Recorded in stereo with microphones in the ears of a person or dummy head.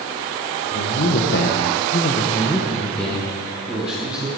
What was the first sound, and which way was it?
A man speaking, 50° left (ahead or behind).